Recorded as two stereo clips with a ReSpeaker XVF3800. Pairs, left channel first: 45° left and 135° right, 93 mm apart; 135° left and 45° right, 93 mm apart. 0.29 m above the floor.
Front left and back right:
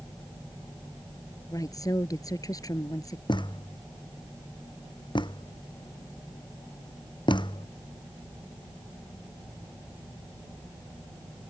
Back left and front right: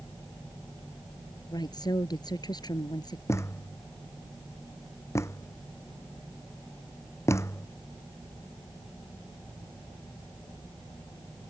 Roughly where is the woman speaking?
Left.